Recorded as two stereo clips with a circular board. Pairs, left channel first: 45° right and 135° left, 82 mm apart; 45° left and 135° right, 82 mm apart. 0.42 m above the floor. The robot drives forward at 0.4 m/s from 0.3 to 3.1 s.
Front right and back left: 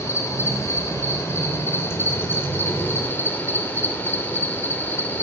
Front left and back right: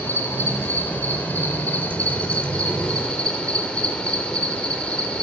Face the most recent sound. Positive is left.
turn(degrees=-20)